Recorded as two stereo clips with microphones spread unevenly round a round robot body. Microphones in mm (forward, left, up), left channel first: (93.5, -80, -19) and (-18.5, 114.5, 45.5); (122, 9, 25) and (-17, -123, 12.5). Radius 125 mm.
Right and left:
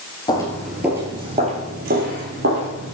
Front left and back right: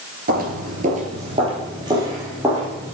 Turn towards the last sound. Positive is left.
turn(degrees=135)